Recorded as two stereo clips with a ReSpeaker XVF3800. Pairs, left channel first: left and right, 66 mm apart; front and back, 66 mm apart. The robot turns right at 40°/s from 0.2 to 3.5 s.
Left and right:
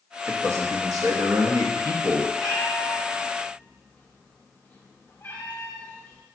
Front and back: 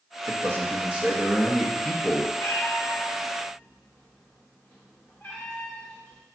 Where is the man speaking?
140° right, 1.2 m; by 2.3 s 60° right, 1.2 m.